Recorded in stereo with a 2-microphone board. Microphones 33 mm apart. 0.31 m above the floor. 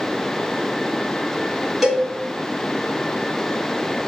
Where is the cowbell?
5° right (ahead or behind), 1.6 m.